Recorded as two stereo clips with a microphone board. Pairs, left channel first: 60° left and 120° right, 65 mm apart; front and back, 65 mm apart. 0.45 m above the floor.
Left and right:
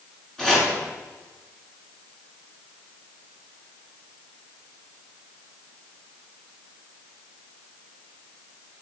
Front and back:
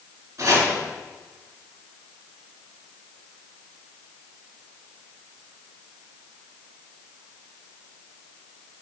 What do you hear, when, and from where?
0.4 s chopping: 145° left, 3 m